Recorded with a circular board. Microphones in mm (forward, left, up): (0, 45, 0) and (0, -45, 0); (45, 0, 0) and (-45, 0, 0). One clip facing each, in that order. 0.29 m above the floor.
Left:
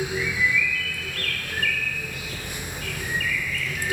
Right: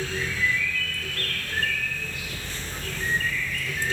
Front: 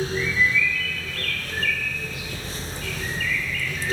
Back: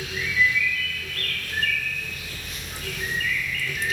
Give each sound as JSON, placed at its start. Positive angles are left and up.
{"t": 0.1, "sound": "a bird", "azimuth_deg": -135, "distance_m": 5.5}